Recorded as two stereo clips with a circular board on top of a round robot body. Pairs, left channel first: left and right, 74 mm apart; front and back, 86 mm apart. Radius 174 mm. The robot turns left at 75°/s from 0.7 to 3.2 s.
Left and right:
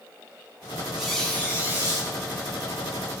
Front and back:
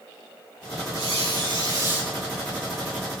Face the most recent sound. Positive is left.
turn(degrees=20)